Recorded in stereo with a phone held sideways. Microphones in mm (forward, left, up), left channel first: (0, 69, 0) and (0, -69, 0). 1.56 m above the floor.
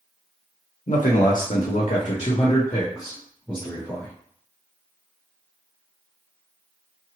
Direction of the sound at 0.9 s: 70° left (ahead or behind).